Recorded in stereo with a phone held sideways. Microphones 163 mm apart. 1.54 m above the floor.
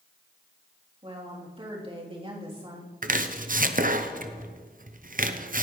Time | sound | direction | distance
1.0 | a woman speaking | 35° right (ahead or behind) | 3.5 m
3.0 | chopping | 50° right (ahead or behind) | 0.7 m